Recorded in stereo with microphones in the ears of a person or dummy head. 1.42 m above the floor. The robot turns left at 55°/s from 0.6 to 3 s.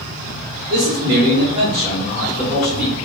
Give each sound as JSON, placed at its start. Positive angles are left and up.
{"t": 0.7, "sound": "a man speaking", "azimuth_deg": -110, "distance_m": 1.0}